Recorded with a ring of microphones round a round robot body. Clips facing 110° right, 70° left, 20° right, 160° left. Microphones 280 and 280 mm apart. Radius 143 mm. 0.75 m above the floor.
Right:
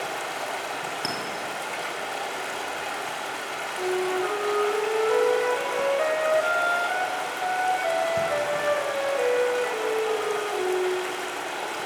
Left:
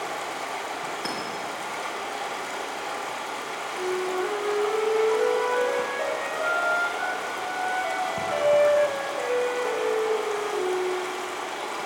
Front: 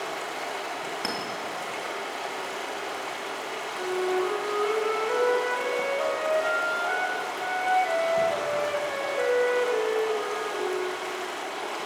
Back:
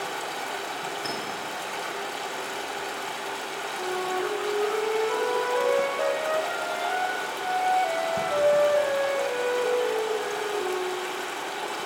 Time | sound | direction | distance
0.0 | running water | 150° right | 3 m
1.0 | a clink | 75° right | 2.5 m
3.8 | a flute | 85° right | 2 m